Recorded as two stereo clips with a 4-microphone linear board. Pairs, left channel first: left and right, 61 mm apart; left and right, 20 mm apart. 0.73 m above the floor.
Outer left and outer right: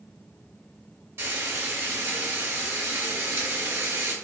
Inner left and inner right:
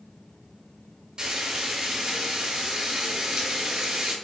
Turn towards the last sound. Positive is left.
turn(degrees=-45)  # may be behind; listen again after turning